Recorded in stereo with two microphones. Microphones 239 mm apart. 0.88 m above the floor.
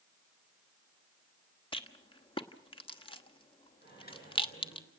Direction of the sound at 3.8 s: 45° left (ahead or behind).